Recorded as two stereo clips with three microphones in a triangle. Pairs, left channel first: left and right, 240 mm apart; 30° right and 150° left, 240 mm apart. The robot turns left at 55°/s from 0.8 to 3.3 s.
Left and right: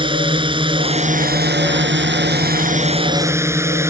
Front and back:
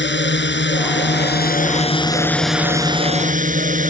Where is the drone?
30° right; by 3.9 s 165° right.